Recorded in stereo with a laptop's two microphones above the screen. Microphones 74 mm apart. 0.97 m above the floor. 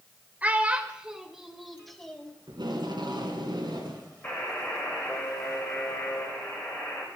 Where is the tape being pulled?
75° right (ahead or behind), 2.5 m.